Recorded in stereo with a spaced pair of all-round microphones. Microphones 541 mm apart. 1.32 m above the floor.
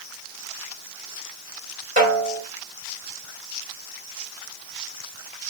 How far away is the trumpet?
I don't hear a trumpet.